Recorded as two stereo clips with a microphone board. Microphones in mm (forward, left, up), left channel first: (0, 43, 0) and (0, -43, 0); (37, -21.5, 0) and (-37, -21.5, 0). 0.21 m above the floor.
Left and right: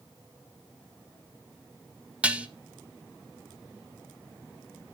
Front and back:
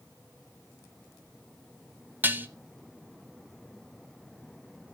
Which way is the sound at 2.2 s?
150° right.